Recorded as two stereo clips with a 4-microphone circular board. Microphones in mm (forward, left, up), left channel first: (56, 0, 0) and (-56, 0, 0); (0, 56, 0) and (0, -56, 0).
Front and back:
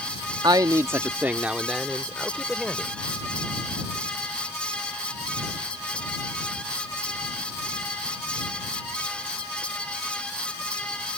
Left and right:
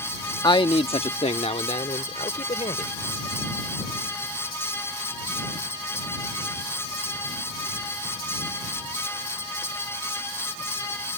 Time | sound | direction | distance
0.4 | a man speaking | 135° left | ?